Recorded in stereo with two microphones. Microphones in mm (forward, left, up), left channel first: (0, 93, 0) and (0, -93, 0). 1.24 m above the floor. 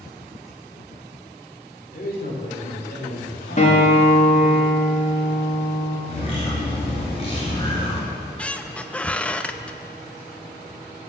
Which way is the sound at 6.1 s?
35° left (ahead or behind).